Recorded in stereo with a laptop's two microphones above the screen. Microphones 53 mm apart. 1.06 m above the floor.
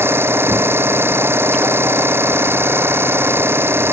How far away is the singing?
I don't hear singing.